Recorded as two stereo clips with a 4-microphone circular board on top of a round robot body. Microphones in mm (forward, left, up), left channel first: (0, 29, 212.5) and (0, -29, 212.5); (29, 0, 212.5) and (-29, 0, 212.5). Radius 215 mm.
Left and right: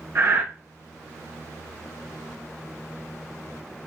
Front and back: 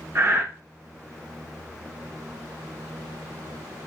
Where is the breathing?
135° right, 0.9 m.